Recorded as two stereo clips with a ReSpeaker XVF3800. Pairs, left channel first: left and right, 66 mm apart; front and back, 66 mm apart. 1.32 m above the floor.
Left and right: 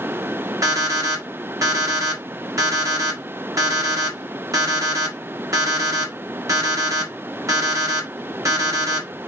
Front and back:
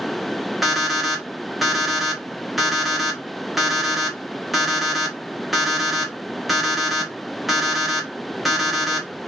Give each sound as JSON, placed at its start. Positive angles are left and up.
{"t": 0.6, "sound": "an alarm clock", "azimuth_deg": -90, "distance_m": 1.2}